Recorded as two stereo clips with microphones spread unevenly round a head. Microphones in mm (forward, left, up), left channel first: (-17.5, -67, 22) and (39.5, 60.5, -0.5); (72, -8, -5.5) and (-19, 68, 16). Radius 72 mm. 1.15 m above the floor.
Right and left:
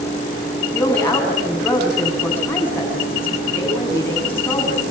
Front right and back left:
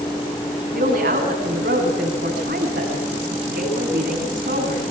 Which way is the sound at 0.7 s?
170° left.